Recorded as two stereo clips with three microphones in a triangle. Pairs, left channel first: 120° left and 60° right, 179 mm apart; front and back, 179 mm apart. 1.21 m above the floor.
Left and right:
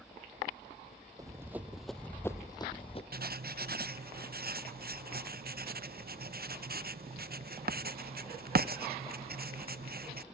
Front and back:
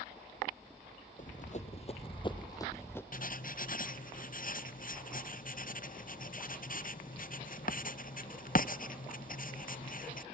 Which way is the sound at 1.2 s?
Straight ahead.